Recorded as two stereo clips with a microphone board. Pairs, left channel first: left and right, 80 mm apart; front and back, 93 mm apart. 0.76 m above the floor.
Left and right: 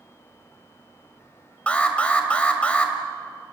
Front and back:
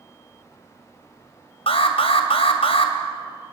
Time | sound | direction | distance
1.7 | an alarm | 15° left | 2.5 m